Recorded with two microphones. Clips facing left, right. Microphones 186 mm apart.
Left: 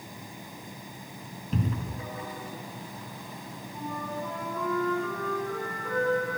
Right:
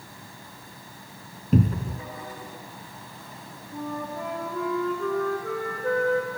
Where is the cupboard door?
50° right (ahead or behind), 0.7 m.